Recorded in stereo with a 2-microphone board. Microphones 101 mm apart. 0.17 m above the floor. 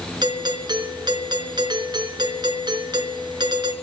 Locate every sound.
0.2 s a doorbell: 45° right (ahead or behind), 3.5 m